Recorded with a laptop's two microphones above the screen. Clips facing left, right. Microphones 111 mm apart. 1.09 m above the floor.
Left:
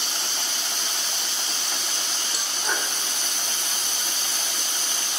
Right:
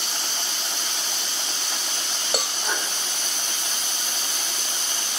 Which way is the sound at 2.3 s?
80° right.